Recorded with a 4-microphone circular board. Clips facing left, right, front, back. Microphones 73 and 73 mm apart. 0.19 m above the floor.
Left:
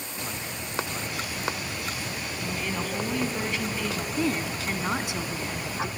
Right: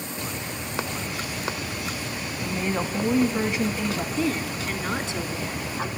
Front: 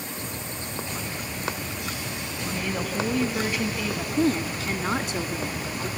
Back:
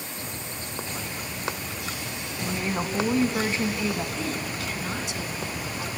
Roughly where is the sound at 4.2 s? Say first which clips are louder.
Right 1 dB, front 7 dB; ahead.